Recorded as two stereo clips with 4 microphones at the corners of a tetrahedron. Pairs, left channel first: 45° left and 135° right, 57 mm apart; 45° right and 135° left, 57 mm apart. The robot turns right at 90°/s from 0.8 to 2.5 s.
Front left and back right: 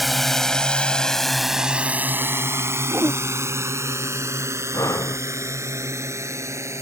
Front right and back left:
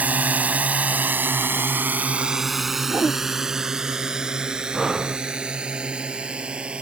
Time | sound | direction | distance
0.0 | a drone | 135° left | ?
2.9 | a whoosh | 170° right | ?
4.7 | breathing | 45° left | ?